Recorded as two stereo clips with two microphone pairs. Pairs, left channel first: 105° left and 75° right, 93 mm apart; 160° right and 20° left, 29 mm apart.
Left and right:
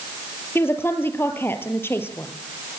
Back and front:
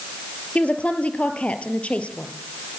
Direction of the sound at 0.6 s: 165° left.